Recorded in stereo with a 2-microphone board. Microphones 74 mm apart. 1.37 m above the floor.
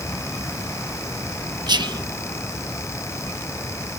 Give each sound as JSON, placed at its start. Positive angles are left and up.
{"t": 1.7, "sound": "whispering", "side_deg": -75}